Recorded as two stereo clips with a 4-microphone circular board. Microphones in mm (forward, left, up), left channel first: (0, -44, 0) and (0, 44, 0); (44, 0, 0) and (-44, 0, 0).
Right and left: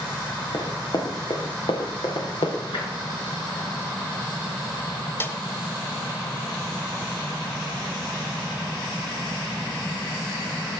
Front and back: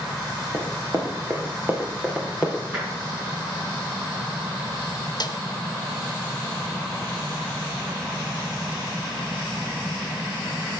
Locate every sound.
0.5 s running footsteps: 135° right, 3.5 m; by 2.6 s 95° right, 4 m
2.7 s tapping: 110° right, 6.5 m
5.2 s a snare drum: 30° right, 0.9 m